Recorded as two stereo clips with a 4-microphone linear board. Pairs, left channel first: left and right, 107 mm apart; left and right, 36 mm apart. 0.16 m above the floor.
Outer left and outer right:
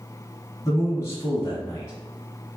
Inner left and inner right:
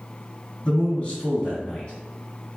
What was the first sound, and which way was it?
A man speaking, 25° left (ahead or behind).